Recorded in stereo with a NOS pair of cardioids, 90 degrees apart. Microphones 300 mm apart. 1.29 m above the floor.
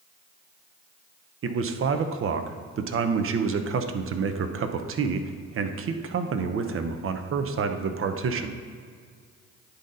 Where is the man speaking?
45° right, 0.7 m.